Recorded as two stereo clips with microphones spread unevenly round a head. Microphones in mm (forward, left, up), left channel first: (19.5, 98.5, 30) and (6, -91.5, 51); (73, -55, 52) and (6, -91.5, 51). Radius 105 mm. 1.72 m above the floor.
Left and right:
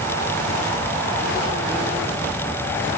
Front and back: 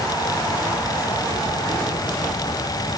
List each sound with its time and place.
Only background noise.